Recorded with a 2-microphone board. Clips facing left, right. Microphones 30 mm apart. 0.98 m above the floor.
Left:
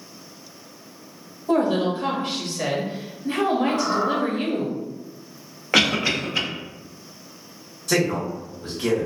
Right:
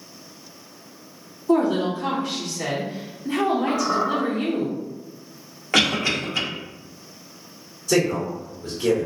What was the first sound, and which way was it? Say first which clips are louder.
A woman speaking: right 1 dB; 55° left (ahead or behind).